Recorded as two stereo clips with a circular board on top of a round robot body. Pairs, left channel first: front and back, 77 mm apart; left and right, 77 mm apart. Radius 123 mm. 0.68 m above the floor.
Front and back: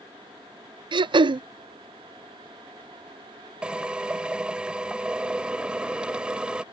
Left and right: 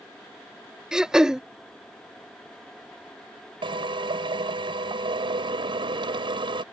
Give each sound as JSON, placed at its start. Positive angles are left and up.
{"t": 0.9, "sound": "throat clearing", "azimuth_deg": -175}
{"t": 3.6, "sound": "a drill", "azimuth_deg": -100}